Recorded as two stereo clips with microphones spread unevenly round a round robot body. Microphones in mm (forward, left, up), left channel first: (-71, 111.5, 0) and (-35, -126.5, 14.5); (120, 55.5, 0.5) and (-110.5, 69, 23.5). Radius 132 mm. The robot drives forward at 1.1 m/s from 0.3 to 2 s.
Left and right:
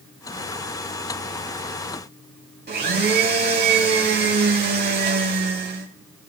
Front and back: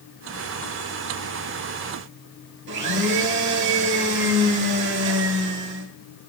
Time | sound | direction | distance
2.7 | a blender | 135° right | 2 m